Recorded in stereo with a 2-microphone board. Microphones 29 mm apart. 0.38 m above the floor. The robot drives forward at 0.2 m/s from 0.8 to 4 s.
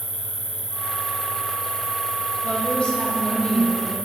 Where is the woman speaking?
30° left (ahead or behind), 1.4 m; by 4.0 s 35° left (ahead or behind), 1.3 m.